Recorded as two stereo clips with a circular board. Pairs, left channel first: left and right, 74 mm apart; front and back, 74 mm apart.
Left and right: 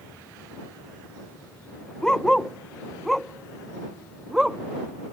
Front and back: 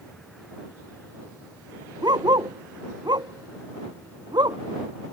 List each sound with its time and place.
2.0 s a dog barking: 170° left; by 4.6 s 170° right